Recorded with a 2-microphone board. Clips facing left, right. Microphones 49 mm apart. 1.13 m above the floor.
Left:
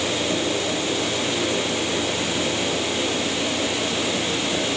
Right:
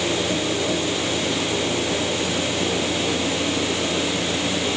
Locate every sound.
Only background noise.